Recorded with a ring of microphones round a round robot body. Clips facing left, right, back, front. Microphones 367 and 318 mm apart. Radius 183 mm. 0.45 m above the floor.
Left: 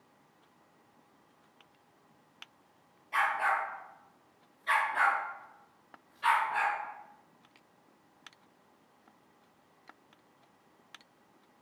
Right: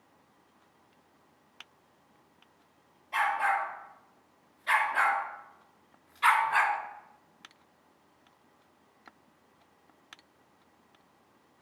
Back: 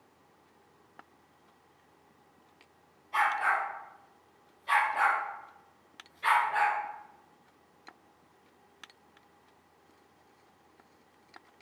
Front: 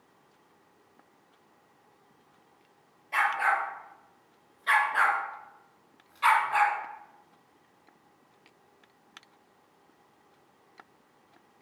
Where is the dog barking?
5° left, 4.5 m; by 6.8 s 45° right, 2.0 m.